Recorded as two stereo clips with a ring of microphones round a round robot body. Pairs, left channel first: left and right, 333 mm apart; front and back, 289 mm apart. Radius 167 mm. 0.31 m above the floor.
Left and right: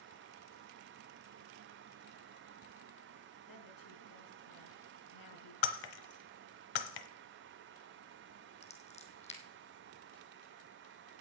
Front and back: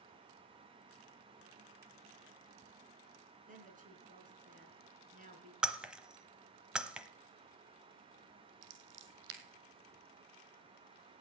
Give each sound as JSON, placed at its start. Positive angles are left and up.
{"t": 3.5, "sound": "a woman speaking", "azimuth_deg": 115, "distance_m": 3.5}
{"t": 5.6, "sound": "breaking glass", "azimuth_deg": 95, "distance_m": 1.1}
{"t": 8.6, "sound": "scissors", "azimuth_deg": 160, "distance_m": 2.0}